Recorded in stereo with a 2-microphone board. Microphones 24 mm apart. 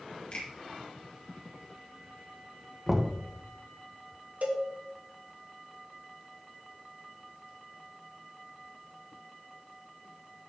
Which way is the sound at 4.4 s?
60° right (ahead or behind).